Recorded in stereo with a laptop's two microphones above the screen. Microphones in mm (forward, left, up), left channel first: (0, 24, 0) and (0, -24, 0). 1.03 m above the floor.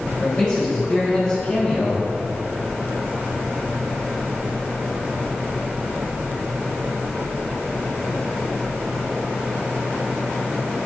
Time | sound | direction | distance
0.2 | a man speaking | 35° left (ahead or behind) | 4 m